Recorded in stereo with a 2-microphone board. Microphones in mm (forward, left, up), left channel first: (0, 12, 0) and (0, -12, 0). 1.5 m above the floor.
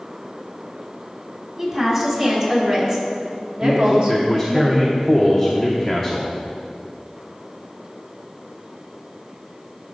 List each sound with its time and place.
1.6 s a woman speaking: 25° right (ahead or behind), 2.5 m; by 4.6 s 60° right (ahead or behind), 1.4 m
3.6 s a man speaking: 15° right (ahead or behind), 0.8 m